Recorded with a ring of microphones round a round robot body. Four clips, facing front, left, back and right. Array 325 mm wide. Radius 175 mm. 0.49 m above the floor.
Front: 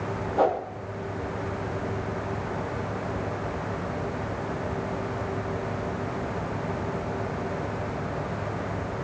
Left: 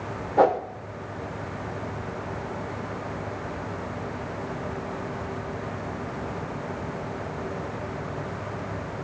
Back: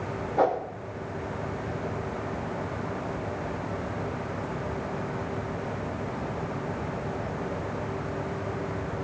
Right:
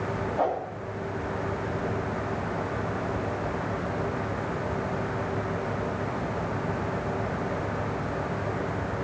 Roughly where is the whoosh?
Left.